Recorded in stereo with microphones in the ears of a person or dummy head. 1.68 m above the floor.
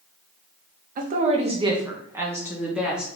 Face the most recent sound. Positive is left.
turn(degrees=-5)  # may be behind; listen again after turning